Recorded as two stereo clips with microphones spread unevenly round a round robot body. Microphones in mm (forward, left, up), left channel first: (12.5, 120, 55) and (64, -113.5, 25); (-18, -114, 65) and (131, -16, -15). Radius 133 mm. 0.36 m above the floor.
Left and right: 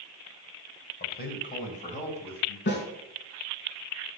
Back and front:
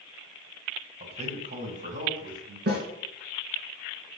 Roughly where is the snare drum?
Ahead left.